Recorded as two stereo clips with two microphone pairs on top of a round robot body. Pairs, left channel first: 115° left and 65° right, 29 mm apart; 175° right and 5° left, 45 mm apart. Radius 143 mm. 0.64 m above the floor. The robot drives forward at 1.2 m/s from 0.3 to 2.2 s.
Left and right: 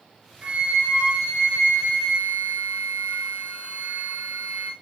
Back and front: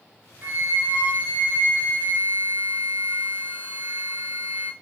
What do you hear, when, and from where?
0.4 s a flute: 20° right, 6 m; by 4.7 s 30° right, 4 m